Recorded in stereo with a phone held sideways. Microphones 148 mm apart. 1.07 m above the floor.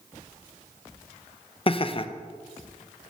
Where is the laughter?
40° left (ahead or behind), 0.5 m.